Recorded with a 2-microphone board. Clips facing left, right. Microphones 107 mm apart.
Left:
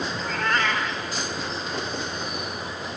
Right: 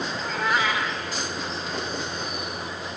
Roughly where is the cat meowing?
Centre.